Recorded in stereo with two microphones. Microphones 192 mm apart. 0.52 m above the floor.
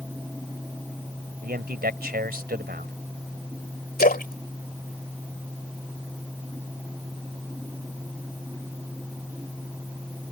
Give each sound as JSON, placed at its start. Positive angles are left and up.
{"t": 1.4, "sound": "a man speaking", "side_deg": -55}
{"t": 4.0, "sound": "a splash", "side_deg": 50}